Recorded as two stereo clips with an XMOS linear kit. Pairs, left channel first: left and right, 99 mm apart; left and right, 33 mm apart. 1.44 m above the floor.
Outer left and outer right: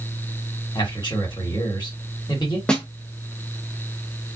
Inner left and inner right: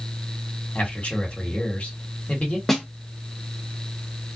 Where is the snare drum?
10° left (ahead or behind), 0.8 m.